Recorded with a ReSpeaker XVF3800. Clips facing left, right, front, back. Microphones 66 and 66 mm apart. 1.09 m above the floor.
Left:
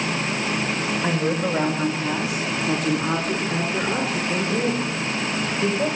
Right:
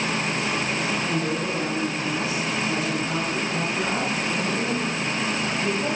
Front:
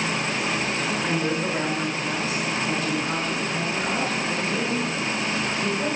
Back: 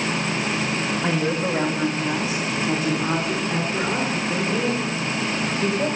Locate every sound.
1.0 s a woman speaking: 125° left, 1.6 m; by 5.9 s 120° left, 5.5 m